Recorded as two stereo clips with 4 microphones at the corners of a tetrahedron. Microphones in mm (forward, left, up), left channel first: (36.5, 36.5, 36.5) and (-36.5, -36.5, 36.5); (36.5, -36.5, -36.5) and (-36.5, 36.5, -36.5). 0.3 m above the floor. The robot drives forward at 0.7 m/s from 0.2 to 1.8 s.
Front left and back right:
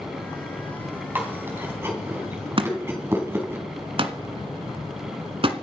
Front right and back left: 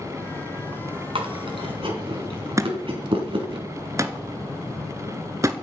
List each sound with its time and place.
1.1 s chewing: 155° left, 3 m; by 3.6 s 160° left, 3 m
2.6 s a thud: 165° right, 1.2 m